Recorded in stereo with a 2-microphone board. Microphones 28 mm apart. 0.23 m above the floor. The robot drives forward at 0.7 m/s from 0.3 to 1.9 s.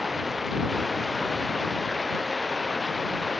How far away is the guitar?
No guitar in this recording.